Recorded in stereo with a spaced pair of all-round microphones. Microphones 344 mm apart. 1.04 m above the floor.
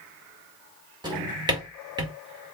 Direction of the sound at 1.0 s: 10° right (ahead or behind).